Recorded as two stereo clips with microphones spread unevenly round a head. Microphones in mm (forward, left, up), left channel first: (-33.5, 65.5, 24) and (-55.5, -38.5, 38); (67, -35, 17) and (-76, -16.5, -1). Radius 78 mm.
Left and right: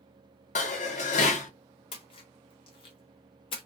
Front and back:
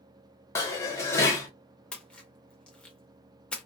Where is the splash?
55° left, 0.8 m.